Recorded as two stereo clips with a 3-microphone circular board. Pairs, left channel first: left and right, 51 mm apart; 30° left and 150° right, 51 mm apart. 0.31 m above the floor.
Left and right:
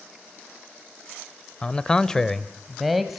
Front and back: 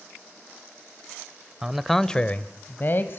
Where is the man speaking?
145° left, 1.0 m; by 3.2 s 5° right, 1.6 m.